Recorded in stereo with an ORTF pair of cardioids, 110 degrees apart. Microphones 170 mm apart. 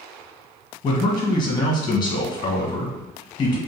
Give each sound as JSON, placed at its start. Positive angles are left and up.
{"t": 0.8, "sound": "a man speaking", "azimuth_deg": 25, "distance_m": 1.3}